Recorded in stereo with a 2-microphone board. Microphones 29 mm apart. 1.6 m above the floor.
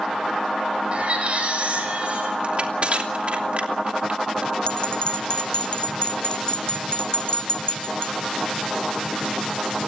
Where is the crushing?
50° right (ahead or behind), 3 m.